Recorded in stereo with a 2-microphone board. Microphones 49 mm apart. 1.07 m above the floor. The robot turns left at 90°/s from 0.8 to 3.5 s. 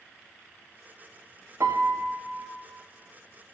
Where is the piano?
75° right, 0.6 m; by 2.5 s 160° right, 0.6 m.